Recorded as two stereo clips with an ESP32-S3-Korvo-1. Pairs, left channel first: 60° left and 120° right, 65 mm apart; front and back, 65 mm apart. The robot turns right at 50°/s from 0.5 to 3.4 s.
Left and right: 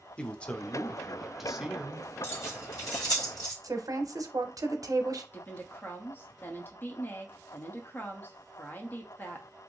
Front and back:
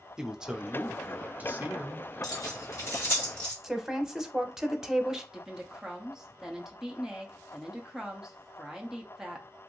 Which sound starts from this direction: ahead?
Keys jangling, at 2.2 s.